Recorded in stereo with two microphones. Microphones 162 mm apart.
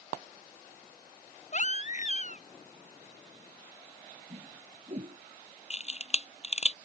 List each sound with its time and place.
1.5 s a baby crying: 50° left (ahead or behind)
4.3 s a whoosh: 45° right (ahead or behind)
5.7 s a camera shutter: 45° left (ahead or behind)